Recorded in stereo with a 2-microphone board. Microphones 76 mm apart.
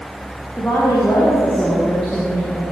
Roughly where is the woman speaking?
Left.